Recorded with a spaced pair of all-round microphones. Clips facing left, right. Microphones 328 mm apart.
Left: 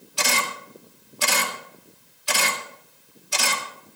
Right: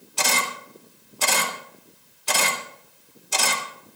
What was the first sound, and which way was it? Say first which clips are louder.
A camera shutter: even; 60° right (ahead or behind).